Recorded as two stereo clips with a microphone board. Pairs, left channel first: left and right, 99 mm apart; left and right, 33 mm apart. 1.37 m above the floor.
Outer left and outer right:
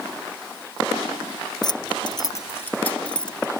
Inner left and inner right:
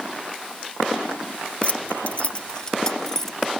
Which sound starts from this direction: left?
Keys jangling, at 1.6 s.